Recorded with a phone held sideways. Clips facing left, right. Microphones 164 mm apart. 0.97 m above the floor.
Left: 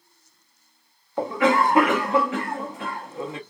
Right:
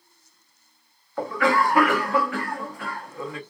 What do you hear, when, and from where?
1.2 s a cough: 20° left (ahead or behind), 0.8 m